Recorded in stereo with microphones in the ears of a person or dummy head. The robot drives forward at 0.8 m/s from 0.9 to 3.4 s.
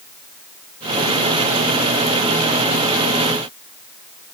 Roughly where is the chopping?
No chopping in this recording.